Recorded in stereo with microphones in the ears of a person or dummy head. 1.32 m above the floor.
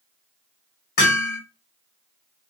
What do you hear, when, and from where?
1.0 s hammering: 50° left (ahead or behind), 1.4 m